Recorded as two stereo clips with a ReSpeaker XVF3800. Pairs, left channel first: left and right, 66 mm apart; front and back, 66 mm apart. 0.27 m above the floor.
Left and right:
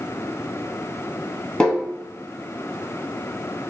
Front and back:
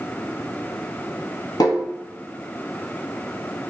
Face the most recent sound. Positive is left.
turn(degrees=15)